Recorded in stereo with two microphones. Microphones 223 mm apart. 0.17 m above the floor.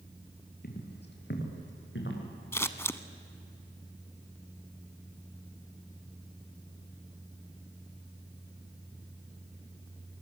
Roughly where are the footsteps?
Left.